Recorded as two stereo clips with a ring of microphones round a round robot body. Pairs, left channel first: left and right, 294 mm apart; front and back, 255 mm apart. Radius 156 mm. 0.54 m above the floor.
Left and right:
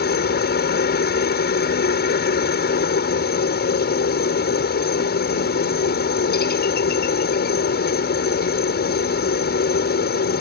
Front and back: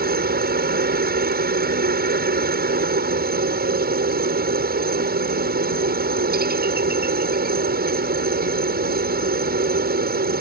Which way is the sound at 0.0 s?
140° left.